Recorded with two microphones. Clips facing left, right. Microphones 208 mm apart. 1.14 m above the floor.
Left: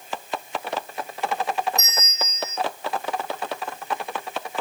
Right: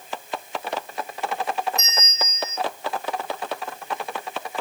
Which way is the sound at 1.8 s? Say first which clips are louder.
Right 1 dB; 45° left (ahead or behind).